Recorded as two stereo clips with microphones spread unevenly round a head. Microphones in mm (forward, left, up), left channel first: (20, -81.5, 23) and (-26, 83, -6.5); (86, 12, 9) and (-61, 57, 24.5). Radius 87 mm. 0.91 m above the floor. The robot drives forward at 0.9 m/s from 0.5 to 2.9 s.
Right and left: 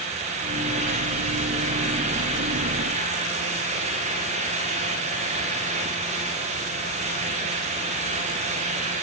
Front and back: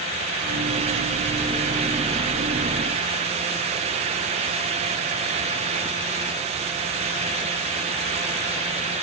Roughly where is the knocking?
No knocking in this recording.